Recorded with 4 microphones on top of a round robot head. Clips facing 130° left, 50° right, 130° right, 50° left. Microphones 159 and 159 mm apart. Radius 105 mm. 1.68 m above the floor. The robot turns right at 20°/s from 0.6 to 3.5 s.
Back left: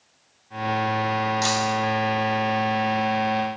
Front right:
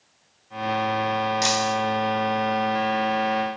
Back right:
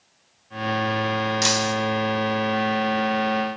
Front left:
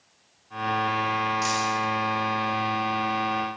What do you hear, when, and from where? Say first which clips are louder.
1.4 s breaking glass: even, back right 4 dB; 125° right, 2.5 m; by 1.8 s 115° right, 2.5 m